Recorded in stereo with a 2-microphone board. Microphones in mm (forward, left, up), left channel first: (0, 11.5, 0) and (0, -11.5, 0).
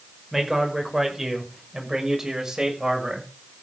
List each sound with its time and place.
0.3 s a man speaking: 10° right (ahead or behind), 6 m; by 3.3 s 25° right (ahead or behind), 7 m